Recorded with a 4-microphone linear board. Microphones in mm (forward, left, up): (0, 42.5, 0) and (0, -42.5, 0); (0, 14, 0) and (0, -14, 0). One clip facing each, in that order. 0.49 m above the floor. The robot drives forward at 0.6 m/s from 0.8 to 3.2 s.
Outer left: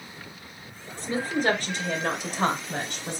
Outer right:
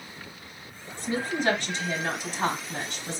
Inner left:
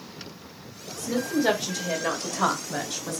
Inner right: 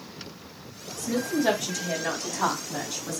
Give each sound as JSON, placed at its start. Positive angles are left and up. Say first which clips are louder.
{"t": 1.0, "sound": "a woman speaking", "louder": "outer left 2 dB, inner left 1 dB", "side_deg": 45, "distance_m": 1.9}